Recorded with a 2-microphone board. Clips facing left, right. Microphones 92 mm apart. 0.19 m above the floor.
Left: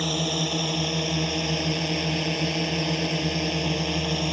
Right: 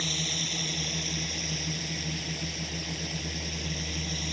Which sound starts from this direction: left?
A drone, at 0.0 s.